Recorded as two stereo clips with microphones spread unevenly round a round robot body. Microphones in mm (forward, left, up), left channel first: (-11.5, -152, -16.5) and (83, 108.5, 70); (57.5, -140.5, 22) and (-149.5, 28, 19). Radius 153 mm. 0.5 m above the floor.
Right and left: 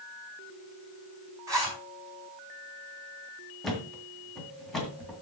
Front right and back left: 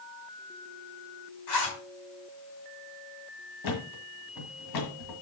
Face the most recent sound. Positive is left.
turn(degrees=-25)